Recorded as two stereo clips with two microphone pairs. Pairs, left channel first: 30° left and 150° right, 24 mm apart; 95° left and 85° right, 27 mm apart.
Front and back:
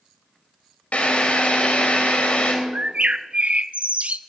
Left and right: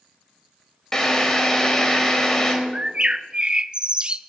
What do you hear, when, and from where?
0.9 s a drill: 20° left, 3.5 m
2.7 s a bird: 140° right, 0.6 m